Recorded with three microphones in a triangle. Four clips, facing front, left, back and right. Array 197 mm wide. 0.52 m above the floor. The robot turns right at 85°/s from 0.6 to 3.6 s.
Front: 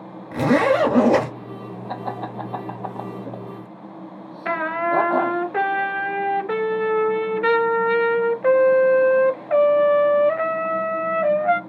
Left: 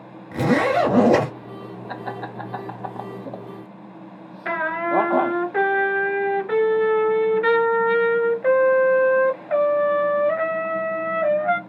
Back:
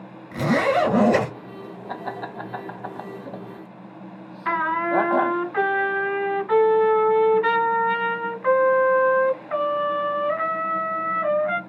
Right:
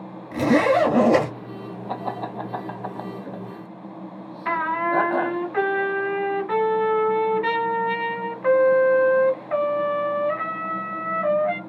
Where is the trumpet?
25° left, 0.7 m.